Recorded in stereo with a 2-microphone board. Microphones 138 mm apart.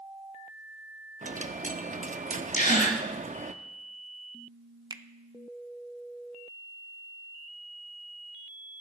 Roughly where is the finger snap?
Right.